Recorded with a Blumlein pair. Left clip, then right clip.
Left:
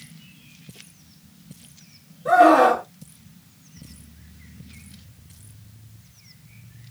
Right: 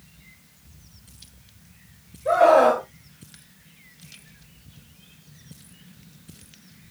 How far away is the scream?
About 1.9 m.